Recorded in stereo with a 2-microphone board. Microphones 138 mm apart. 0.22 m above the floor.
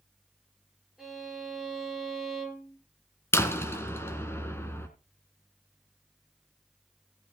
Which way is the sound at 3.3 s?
20° left (ahead or behind).